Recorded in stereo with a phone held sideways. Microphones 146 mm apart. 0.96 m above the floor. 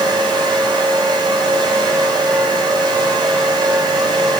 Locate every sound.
0.0 s a fan: 30° right (ahead or behind), 3 m